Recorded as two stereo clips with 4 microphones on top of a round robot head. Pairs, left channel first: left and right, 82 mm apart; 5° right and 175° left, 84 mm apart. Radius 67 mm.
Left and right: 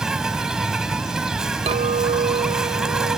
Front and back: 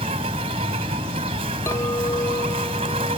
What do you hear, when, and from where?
0.0 s an insect: 170° right
1.7 s a clink: 70° right